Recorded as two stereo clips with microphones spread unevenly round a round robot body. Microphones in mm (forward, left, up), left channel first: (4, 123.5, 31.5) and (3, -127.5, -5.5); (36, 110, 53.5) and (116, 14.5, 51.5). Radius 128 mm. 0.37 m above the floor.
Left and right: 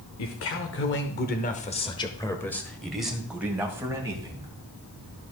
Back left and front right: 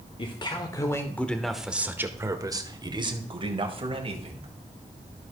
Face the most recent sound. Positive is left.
turn(degrees=-20)